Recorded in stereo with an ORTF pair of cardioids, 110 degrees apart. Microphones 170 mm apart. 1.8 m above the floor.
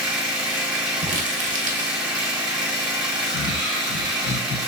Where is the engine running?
5° right, 1.3 m.